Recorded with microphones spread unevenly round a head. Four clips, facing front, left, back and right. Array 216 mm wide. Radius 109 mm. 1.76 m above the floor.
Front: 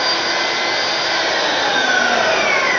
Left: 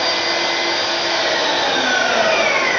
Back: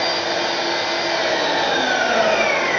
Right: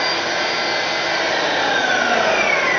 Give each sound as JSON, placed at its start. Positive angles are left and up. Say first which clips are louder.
{"t": 0.0, "sound": "an engine running", "louder": "left 1 dB, front 1 dB", "azimuth_deg": 135, "distance_m": 1.0}